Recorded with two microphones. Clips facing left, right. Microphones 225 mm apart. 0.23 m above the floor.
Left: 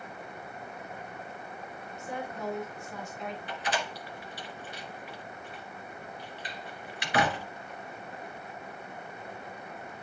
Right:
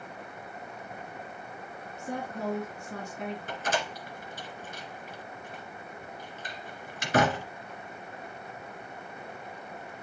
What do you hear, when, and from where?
2.0 s a woman speaking: 55° right (ahead or behind), 3 m
3.5 s a door slam: 45° right (ahead or behind), 1.9 m